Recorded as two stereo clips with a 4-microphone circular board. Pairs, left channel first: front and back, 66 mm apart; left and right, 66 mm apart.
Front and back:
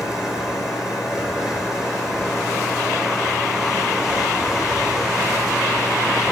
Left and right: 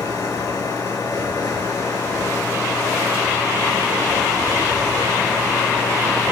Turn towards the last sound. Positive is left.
turn(degrees=95)